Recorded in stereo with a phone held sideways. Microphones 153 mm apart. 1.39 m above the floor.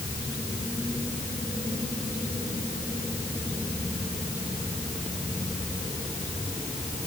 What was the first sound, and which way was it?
Only background noise.